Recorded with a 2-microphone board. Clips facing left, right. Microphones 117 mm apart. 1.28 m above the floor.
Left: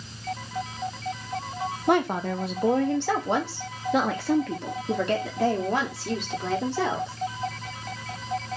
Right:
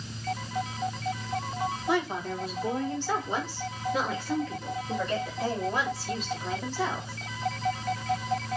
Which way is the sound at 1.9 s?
60° left (ahead or behind).